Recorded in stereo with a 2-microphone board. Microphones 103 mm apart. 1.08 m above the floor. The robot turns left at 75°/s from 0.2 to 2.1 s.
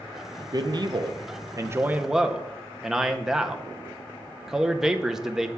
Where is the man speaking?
55° right, 0.6 m; by 5.5 s 175° right, 0.6 m.